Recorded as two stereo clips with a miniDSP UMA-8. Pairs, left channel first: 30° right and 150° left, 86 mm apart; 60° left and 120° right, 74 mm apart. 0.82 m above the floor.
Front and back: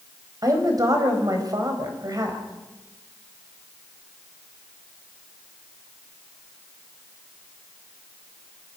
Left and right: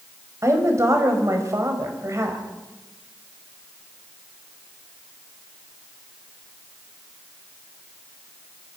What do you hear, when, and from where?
0.4 s a woman speaking: 165° right, 4.5 m